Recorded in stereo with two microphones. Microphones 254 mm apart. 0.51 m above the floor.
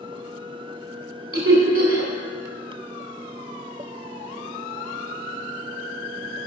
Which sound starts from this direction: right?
Laughter, at 1.3 s.